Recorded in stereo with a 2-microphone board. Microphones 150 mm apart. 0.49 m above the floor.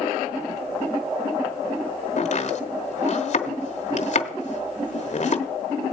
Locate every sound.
2.2 s chopping: 55° left (ahead or behind), 1.1 m